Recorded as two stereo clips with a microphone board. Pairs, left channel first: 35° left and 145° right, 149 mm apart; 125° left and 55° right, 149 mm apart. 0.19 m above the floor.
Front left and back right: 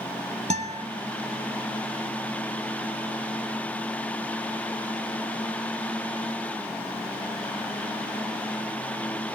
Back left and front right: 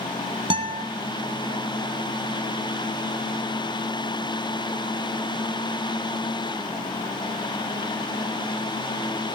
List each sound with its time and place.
0.5 s a guitar: 110° right, 1.3 m